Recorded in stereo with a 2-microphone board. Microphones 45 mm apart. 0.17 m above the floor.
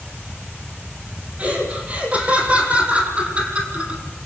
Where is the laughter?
35° right (ahead or behind), 7.5 m; by 4.0 s 30° right (ahead or behind), 6 m.